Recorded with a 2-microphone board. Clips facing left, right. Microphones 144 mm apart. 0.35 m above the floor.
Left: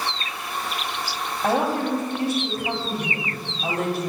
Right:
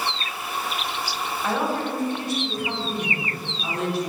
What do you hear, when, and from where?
1.4 s a woman speaking: 55° left (ahead or behind), 1.8 m